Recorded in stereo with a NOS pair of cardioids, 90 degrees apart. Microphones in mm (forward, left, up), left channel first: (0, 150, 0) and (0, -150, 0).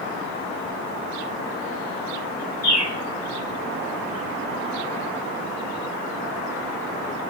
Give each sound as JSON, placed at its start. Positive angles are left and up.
{"t": 2.6, "sound": "a bird", "azimuth_deg": 65, "distance_m": 2.0}